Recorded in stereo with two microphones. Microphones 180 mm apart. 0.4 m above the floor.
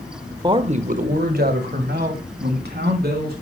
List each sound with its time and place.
0.4 s a man speaking: 25° right (ahead or behind), 0.9 m; by 3.3 s 65° right (ahead or behind), 3.5 m